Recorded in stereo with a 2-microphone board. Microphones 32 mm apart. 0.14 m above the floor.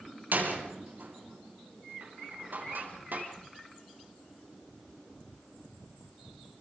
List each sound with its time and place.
0.3 s a door slam: 70° right (ahead or behind), 5 m